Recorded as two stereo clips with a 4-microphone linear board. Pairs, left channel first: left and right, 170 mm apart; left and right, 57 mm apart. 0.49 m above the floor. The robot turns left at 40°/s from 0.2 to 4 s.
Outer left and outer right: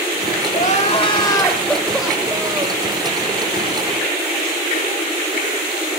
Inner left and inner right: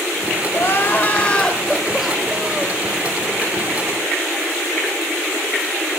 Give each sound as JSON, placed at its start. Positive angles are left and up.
{"t": 0.5, "sound": "crying", "azimuth_deg": 55, "distance_m": 1.2}